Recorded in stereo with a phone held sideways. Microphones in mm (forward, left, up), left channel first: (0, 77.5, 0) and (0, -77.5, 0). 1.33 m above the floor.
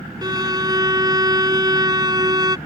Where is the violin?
25° right (ahead or behind).